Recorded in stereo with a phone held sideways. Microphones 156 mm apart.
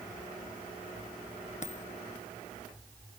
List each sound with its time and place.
1.6 s a dropped coin: 50° left (ahead or behind)